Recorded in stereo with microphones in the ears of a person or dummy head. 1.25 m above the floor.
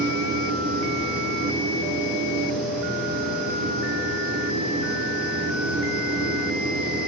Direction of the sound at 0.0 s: 40° right (ahead or behind).